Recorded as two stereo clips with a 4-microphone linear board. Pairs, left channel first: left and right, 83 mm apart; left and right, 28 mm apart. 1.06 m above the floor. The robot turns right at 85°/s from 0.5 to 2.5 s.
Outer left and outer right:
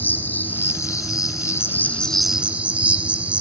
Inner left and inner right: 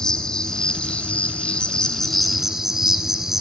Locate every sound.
0.0 s an insect: 35° left, 1.2 m; by 3.4 s 155° right, 1.2 m